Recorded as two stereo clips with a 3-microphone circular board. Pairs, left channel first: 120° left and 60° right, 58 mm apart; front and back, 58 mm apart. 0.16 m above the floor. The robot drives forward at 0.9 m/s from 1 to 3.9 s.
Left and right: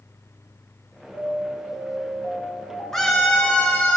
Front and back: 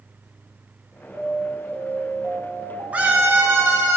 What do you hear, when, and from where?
1.1 s an alarm: 145° left, 1.5 m; by 3.9 s 170° left, 3.5 m
2.9 s a scream: 170° right, 1.2 m; by 4.0 s 175° right, 1.7 m